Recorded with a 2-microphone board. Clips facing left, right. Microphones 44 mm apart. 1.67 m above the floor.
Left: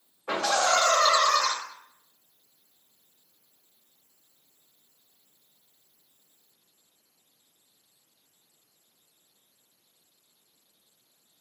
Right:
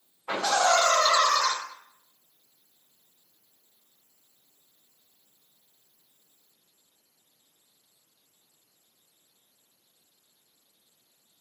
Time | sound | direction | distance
0.3 | laughter | 75° left (ahead or behind) | 1.7 m